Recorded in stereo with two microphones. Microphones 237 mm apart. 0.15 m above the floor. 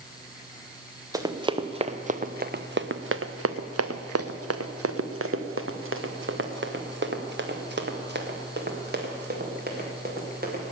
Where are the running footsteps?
15° right (ahead or behind), 1.5 m; by 10.7 s 40° right (ahead or behind), 4.5 m.